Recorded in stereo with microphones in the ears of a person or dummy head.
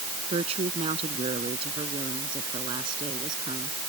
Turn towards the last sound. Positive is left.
turn(degrees=-30)  # may be behind; listen again after turning